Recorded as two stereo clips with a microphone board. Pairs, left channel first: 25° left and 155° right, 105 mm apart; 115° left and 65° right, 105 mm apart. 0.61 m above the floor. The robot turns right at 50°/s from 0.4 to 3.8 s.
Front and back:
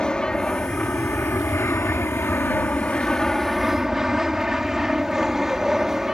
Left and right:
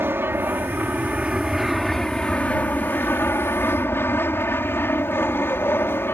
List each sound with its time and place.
0.0 s an aircraft: 45° right; by 6.1 s 125° left